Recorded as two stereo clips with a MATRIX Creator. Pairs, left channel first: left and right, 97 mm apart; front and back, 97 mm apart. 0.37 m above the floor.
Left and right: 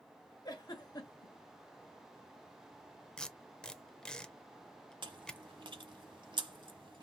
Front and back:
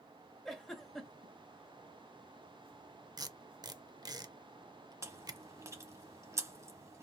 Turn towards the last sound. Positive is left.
turn(degrees=-125)